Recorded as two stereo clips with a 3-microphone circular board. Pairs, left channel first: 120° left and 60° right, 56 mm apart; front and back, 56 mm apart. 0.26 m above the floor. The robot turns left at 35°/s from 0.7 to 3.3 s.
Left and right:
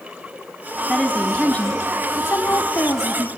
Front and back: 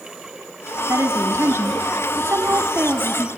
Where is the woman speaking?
155° right, 1.7 m; by 3.3 s 120° left, 1.7 m.